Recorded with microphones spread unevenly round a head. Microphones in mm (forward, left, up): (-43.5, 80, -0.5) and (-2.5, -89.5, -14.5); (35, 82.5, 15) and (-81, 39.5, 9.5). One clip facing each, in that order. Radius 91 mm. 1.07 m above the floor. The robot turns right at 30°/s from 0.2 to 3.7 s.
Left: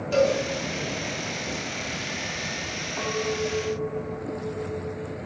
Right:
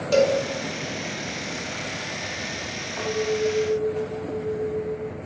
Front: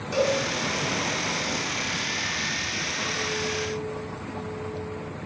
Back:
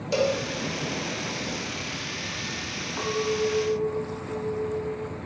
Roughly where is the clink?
Behind.